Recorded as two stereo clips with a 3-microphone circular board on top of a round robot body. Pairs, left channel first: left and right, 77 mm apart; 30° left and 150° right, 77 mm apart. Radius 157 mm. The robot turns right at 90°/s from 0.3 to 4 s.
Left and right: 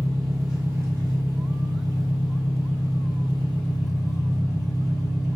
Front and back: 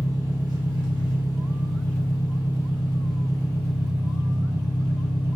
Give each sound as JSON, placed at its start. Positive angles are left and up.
{"t": 0.0, "sound": "an engine running", "azimuth_deg": 170, "distance_m": 1.2}